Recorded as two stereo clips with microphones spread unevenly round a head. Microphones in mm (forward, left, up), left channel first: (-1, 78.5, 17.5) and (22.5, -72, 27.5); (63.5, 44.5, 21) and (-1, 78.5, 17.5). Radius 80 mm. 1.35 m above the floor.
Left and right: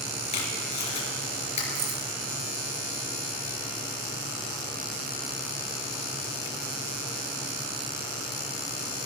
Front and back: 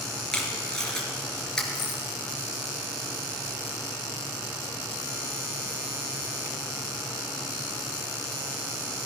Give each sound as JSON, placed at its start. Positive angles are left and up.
{"t": 0.3, "sound": "tape being pulled", "azimuth_deg": 50, "distance_m": 3.5}
{"t": 1.8, "sound": "keys jangling", "azimuth_deg": -50, "distance_m": 2.0}